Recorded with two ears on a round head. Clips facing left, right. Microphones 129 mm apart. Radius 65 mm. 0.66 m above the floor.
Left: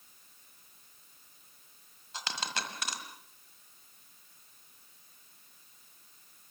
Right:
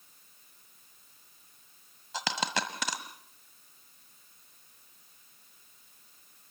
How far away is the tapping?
I don't hear tapping.